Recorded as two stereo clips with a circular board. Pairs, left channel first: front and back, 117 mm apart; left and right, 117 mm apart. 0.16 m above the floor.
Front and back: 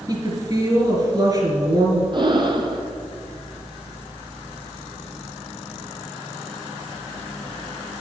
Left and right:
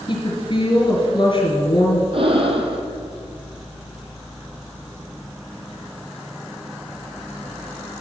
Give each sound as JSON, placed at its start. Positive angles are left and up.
{"t": 0.1, "sound": "a woman speaking", "azimuth_deg": 125, "distance_m": 2.5}
{"t": 2.1, "sound": "breathing", "azimuth_deg": -130, "distance_m": 1.2}